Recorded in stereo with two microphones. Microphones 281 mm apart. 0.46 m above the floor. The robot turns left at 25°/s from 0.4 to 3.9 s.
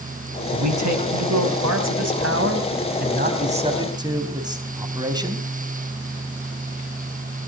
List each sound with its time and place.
0.5 s a man speaking: 80° right, 3.5 m; by 5.5 s 165° right, 3.5 m